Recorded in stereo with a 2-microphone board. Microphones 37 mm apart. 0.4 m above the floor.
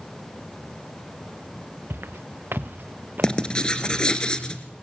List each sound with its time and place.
1.9 s footsteps: 80° right, 1.8 m; by 4.0 s 45° right (ahead or behind), 3.5 m
3.2 s writing: 25° left (ahead or behind), 2.5 m